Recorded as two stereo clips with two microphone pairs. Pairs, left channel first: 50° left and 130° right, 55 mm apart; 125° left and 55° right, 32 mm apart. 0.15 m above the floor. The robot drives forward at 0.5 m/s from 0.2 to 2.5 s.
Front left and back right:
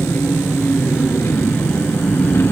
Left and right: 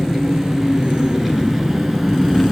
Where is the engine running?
15° left, 2.5 m; by 2.5 s 30° left, 1.7 m.